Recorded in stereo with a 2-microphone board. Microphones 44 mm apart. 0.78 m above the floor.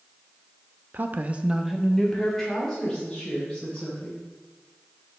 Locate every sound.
0.9 s a woman speaking: 45° right (ahead or behind), 0.7 m; by 4.2 s 15° left (ahead or behind), 4.5 m